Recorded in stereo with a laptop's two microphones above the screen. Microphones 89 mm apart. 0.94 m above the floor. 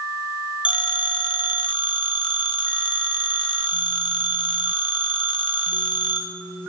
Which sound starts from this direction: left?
A phone ringing, at 0.7 s.